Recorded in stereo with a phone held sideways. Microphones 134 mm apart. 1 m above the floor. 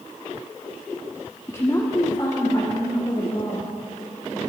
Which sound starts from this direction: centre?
A woman speaking, at 1.5 s.